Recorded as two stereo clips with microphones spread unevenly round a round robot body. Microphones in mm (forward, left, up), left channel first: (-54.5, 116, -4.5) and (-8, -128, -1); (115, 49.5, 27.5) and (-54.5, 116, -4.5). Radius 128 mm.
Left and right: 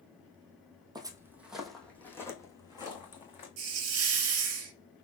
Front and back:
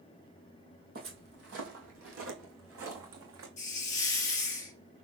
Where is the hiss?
65° right, 0.7 m.